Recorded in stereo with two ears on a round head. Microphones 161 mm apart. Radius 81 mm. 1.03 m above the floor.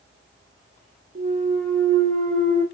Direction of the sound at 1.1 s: 45° right (ahead or behind).